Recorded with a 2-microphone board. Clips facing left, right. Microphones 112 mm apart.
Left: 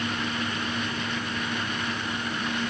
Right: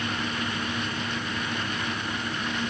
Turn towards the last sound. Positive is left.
No sound to turn to.